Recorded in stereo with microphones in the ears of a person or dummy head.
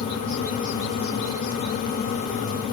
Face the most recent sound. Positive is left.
No sound to turn to.